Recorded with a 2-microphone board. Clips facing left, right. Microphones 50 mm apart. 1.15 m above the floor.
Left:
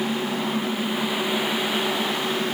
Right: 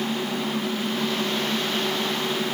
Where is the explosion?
No explosion in this recording.